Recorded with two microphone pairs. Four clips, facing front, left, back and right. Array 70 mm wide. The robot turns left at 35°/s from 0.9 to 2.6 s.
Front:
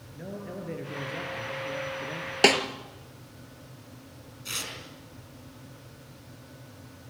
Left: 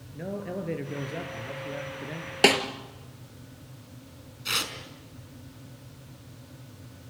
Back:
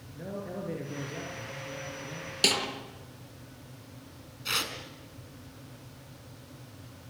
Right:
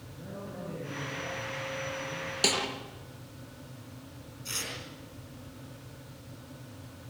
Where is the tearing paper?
135° left, 4.5 m.